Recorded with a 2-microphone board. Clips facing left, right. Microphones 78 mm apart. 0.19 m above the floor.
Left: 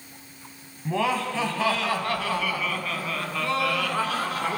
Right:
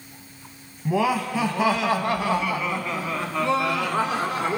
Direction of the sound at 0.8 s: 10° right (ahead or behind).